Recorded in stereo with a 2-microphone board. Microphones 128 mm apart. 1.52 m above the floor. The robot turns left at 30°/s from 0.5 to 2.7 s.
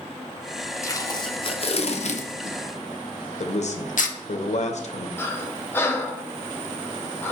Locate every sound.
0.8 s tape being pulled: 25° left (ahead or behind), 0.6 m; by 4.2 s 70° left (ahead or behind), 0.6 m
3.4 s a man speaking: 60° left (ahead or behind), 0.6 m
5.2 s breathing: 15° left (ahead or behind), 0.8 m